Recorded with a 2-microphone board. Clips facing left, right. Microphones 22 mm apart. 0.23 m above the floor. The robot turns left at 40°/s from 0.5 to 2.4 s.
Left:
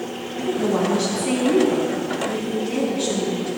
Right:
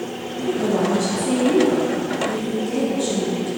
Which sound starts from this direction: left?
A woman speaking, at 0.4 s.